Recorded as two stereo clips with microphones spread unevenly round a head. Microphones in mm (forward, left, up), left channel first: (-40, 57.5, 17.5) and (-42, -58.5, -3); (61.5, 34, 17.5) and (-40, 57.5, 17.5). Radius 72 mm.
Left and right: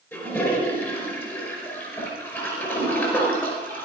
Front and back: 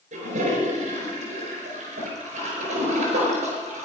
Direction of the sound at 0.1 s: 160° left.